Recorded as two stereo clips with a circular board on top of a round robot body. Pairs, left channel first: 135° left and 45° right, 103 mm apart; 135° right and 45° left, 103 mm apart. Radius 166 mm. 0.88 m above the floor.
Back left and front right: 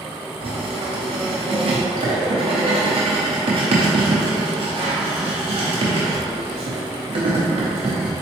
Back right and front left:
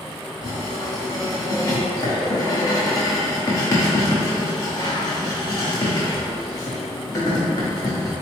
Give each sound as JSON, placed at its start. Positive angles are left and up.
{"t": 0.4, "sound": "writing", "azimuth_deg": -80, "distance_m": 0.5}